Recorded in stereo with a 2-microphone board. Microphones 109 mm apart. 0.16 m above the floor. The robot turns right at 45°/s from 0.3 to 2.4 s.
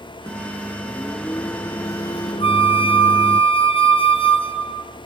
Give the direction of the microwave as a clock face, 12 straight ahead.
1 o'clock.